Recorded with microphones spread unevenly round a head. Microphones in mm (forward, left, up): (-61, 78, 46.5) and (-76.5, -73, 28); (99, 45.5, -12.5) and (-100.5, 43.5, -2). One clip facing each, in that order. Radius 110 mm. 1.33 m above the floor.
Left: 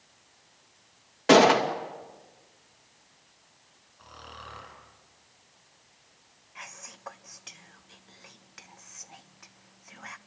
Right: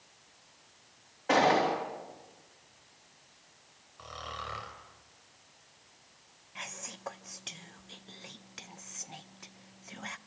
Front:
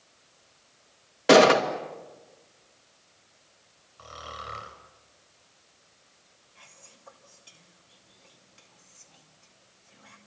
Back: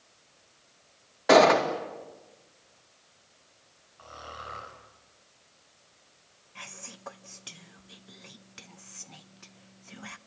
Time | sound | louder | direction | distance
1.3 | a gunshot | left 7 dB, front 2 dB | 55° left | 2.5 m
4.0 | snoring | right 4 dB, front 1 dB | 50° right | 3 m
6.5 | whispering | right 2 dB, back 10 dB | 155° right | 1.3 m